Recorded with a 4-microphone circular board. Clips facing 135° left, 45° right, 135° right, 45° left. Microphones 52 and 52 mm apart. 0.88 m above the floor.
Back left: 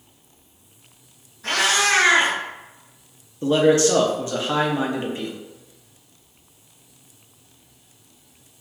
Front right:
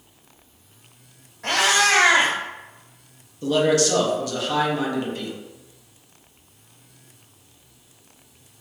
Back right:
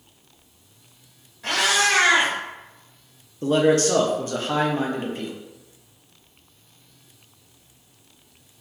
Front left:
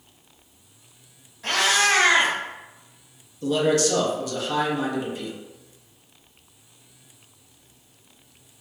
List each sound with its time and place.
1.4 s a cat meowing: 50° right, 1.3 m
3.4 s a man speaking: 175° right, 0.5 m